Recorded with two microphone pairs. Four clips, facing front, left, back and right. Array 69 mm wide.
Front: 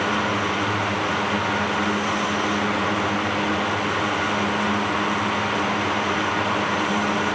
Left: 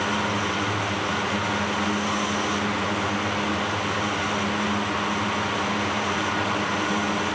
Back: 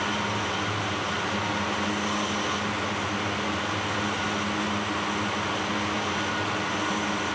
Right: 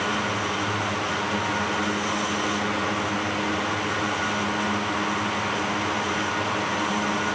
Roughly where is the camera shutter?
No camera shutter in this recording.